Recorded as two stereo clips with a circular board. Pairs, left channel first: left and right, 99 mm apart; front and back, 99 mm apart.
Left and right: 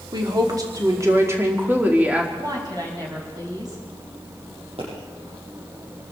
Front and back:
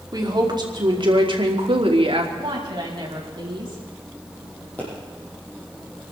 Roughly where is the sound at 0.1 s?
Behind right.